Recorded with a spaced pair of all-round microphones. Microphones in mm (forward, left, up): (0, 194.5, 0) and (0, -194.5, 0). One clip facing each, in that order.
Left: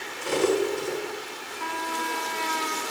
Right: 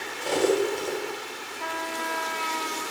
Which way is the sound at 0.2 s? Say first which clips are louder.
Even; 20° left (ahead or behind).